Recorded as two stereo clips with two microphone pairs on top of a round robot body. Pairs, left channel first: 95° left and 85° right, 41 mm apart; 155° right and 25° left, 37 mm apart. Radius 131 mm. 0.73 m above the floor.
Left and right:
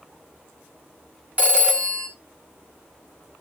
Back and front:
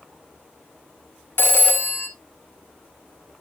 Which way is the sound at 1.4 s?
145° right.